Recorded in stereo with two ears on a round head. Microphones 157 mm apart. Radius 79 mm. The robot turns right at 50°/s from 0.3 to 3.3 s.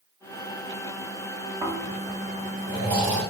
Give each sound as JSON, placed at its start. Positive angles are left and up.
{"t": 1.6, "sound": "snoring", "side_deg": -30, "distance_m": 1.8}